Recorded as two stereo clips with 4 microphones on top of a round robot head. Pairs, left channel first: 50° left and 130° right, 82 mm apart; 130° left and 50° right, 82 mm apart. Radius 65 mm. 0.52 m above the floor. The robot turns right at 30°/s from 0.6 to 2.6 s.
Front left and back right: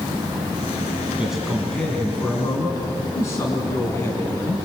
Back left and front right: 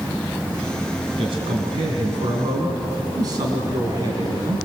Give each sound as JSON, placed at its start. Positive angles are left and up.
{"t": 1.2, "sound": "a man speaking", "azimuth_deg": -50, "distance_m": 4.5}